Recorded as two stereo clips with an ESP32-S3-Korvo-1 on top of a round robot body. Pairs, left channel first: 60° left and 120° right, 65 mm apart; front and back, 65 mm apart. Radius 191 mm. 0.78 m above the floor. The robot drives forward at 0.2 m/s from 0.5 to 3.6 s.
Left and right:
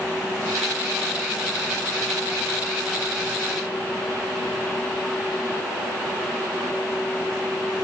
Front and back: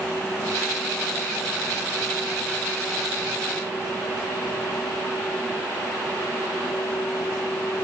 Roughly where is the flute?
I don't hear a flute.